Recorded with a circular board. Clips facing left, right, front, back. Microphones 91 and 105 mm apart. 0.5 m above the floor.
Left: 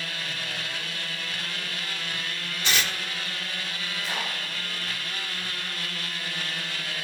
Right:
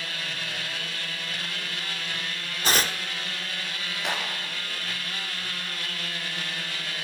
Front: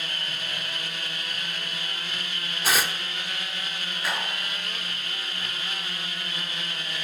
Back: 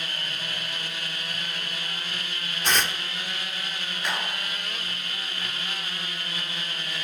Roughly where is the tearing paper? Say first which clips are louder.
Right 3 dB, even; right.